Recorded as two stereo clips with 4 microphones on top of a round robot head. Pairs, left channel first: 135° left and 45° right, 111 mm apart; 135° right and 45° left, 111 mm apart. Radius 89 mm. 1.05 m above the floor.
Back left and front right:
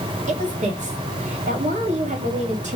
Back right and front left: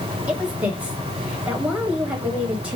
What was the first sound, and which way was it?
A woman speaking, 35° right.